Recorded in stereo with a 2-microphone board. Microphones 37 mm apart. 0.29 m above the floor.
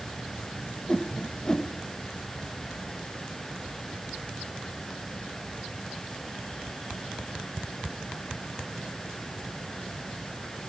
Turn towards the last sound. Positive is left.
turn(degrees=20)  # may be behind; listen again after turning